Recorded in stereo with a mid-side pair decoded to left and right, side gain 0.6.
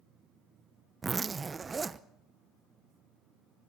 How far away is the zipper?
About 0.8 m.